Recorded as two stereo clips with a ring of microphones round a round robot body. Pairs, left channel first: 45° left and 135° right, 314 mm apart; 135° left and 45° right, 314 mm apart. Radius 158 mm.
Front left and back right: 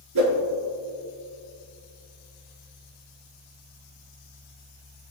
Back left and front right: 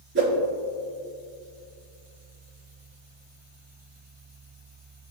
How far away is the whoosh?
About 4 m.